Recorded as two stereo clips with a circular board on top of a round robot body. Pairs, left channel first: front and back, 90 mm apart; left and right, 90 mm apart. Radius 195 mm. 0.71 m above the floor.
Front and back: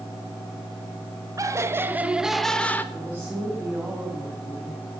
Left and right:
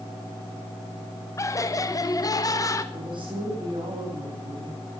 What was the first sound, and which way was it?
Laughter, 135° left.